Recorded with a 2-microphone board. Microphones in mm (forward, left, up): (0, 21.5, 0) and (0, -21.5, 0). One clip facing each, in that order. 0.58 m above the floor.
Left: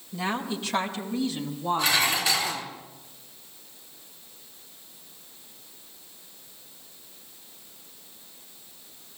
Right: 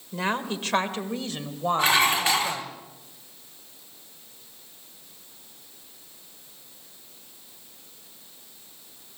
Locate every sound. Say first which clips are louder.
0.1 s a woman speaking: right 2 dB; 50° right (ahead or behind), 2.5 m; by 2.8 s 65° right (ahead or behind), 3.5 m
1.8 s dishes clattering: right 4 dB; 40° right (ahead or behind), 3.5 m